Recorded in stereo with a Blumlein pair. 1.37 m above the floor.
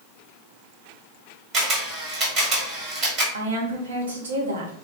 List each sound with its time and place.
1.5 s a camera shutter: 30° right, 1.1 m
3.3 s a woman speaking: 70° right, 0.7 m